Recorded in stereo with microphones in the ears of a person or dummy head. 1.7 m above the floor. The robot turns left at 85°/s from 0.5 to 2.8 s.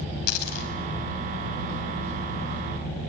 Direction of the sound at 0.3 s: 55° left (ahead or behind).